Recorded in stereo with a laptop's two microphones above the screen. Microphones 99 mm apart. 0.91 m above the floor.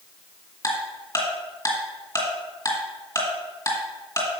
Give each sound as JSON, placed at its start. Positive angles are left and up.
{"t": 0.6, "sound": "ticking", "side_deg": 35, "distance_m": 1.9}